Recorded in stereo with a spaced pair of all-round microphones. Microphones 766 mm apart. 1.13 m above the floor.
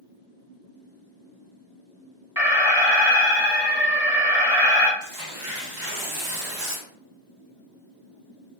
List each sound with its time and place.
2.4 s an alarm: 5° right (ahead or behind), 0.7 m
5.0 s tearing paper: 70° right (ahead or behind), 1.7 m